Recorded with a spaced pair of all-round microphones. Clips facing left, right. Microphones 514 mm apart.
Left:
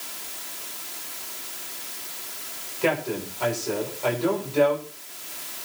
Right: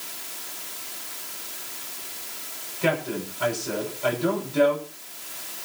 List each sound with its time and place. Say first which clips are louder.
2.8 s a man speaking: left 1 dB; 35° right (ahead or behind), 6 m